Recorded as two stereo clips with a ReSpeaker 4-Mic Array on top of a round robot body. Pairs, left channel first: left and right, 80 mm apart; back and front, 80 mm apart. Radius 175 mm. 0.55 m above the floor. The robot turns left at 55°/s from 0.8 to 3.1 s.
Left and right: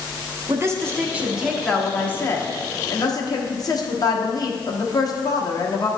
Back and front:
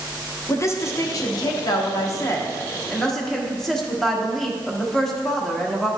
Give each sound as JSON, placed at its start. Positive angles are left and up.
{"t": 0.5, "sound": "a woman speaking", "azimuth_deg": -135, "distance_m": 1.4}